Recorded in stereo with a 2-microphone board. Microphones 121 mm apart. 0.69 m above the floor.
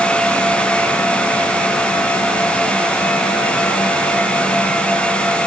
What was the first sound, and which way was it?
Only background noise.